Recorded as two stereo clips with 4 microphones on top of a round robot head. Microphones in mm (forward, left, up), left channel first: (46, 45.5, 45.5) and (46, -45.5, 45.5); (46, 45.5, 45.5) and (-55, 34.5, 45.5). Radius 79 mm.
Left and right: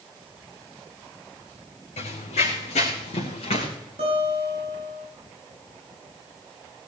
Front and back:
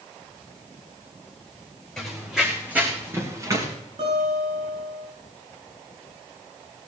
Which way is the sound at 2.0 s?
95° left.